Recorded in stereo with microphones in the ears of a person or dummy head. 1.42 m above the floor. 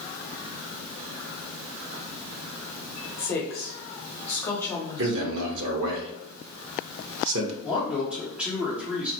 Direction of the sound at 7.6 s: 5° right (ahead or behind).